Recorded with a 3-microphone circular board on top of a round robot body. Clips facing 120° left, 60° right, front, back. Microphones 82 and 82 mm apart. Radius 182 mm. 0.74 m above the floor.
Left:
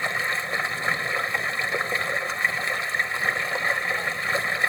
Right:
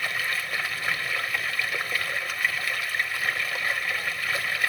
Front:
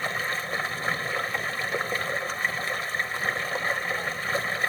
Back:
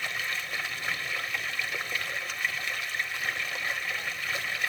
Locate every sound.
0.0 s running water: 55° left